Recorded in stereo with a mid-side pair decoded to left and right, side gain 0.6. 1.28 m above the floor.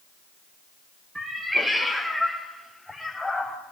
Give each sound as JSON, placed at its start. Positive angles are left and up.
{"t": 1.1, "sound": "a cat meowing", "azimuth_deg": -10, "distance_m": 3.0}